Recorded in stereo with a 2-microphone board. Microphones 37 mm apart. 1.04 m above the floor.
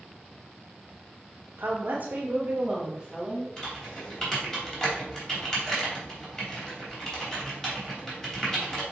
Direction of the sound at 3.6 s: 20° left (ahead or behind).